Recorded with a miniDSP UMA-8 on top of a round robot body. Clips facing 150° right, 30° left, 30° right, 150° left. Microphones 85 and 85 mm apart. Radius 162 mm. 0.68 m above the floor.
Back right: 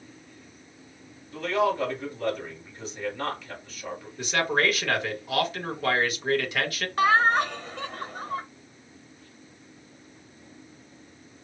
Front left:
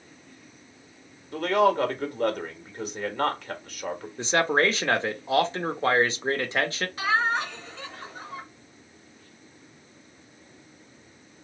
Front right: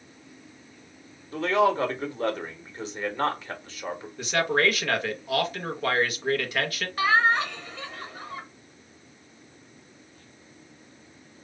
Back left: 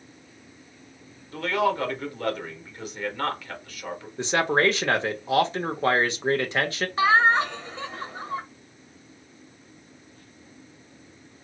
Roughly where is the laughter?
Behind right.